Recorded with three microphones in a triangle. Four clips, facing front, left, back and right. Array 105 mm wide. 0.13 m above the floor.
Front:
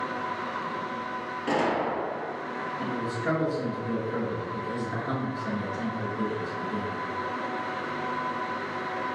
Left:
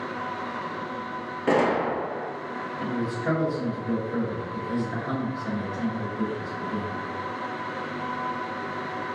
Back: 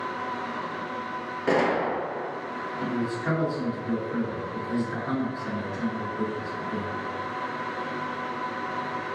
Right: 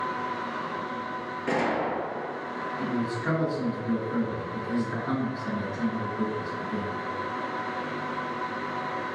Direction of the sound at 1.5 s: 115° left.